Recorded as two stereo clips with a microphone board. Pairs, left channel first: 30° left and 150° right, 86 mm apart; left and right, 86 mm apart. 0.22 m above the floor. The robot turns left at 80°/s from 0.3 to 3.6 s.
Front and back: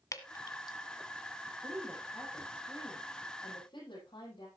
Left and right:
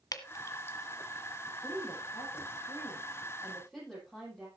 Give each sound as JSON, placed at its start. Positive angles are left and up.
{"t": 0.1, "sound": "dripping", "azimuth_deg": 65, "distance_m": 1.4}
{"t": 1.5, "sound": "a woman speaking", "azimuth_deg": 175, "distance_m": 9.5}